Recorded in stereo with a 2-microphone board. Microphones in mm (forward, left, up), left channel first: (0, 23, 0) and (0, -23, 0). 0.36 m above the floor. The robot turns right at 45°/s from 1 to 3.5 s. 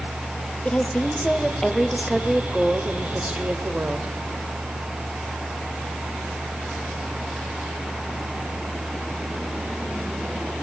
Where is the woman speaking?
135° left, 1.7 m; by 4.1 s 110° right, 1.7 m.